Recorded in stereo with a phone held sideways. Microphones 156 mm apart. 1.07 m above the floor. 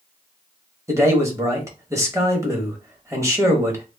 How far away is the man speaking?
About 1.0 m.